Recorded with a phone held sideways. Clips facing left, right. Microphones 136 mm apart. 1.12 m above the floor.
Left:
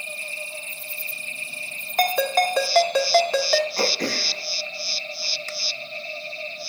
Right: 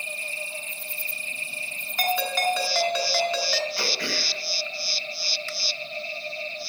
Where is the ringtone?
50° left (ahead or behind), 1.4 m.